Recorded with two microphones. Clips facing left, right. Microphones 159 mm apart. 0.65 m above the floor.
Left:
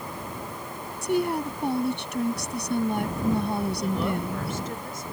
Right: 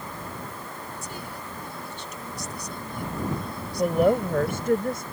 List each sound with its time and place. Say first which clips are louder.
1.0 s a woman speaking: left 13 dB; 80° left
3.8 s a woman speaking: right 7 dB; 65° right (ahead or behind)